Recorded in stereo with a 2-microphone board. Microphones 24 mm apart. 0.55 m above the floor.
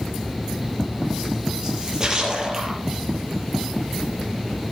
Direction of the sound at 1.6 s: 30° right (ahead or behind).